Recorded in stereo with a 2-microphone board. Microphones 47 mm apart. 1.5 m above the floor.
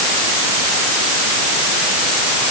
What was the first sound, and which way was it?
Only background noise.